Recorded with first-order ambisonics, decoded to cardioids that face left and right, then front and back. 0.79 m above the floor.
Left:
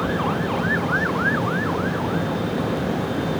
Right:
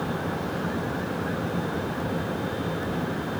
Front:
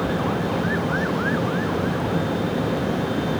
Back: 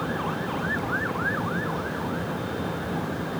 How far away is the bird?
No bird in this recording.